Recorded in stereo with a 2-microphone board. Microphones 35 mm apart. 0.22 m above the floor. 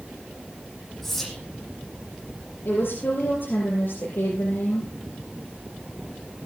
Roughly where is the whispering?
Centre.